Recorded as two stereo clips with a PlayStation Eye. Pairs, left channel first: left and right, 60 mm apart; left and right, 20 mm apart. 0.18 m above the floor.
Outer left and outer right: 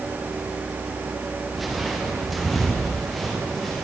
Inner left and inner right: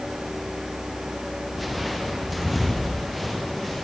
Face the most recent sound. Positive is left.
turn(degrees=0)  # may be behind; listen again after turning